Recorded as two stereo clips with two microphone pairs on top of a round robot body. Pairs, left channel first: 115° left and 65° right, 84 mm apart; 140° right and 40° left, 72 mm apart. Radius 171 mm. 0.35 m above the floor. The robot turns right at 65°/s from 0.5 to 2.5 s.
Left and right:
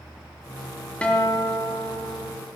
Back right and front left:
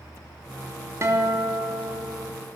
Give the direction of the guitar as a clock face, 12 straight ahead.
11 o'clock.